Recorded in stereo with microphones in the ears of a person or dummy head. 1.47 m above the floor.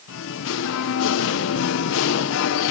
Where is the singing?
70° left (ahead or behind), 1.3 m.